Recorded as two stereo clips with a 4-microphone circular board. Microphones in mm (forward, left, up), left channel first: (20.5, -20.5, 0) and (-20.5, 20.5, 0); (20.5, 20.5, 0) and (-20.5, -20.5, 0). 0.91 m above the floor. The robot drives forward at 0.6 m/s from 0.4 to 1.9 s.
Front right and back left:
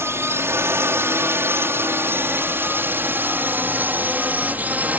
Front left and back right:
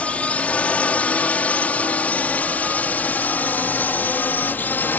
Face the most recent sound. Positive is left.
turn(degrees=85)